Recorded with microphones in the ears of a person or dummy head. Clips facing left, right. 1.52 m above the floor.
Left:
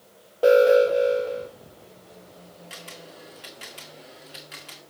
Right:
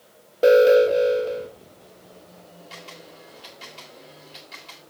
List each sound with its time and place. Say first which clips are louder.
0.4 s an alarm: right 2 dB; 30° right (ahead or behind), 1.5 m
2.7 s a camera shutter: even; 25° left (ahead or behind), 1.9 m